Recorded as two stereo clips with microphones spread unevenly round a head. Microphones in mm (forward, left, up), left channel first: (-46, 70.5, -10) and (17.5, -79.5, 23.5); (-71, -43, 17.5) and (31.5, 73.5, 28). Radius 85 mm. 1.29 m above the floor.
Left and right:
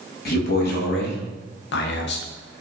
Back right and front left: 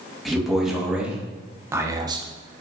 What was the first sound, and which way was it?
A man speaking, 140° left.